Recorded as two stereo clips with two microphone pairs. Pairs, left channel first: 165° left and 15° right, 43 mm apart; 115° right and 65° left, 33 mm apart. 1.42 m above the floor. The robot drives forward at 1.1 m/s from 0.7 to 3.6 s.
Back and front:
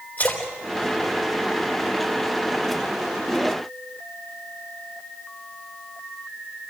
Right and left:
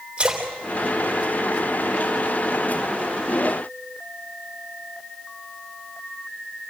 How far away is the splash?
About 3.5 m.